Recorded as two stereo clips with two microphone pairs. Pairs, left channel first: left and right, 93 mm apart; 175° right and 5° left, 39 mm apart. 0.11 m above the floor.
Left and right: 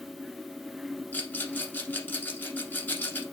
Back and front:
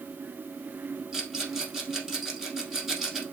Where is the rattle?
65° left, 1.2 m.